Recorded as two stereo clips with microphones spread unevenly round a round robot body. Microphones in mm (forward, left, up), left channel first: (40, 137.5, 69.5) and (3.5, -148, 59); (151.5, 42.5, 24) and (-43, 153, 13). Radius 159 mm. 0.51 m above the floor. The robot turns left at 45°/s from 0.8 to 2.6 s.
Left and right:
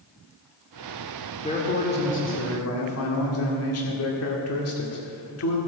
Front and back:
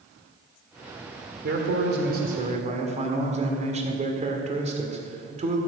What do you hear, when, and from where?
1.4 s a man speaking: 155° left, 1.9 m; by 5.6 s 100° left, 1.9 m